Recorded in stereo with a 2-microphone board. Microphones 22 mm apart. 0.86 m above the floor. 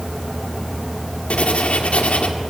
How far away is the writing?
About 1.6 m.